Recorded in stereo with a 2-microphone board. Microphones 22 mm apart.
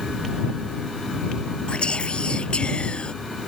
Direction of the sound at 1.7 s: 50° left (ahead or behind).